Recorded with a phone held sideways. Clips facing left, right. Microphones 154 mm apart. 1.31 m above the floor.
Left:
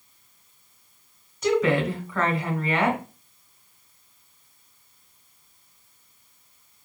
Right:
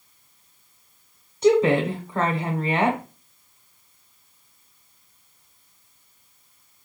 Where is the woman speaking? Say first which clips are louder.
Right 4 dB; 25° right (ahead or behind), 0.9 m.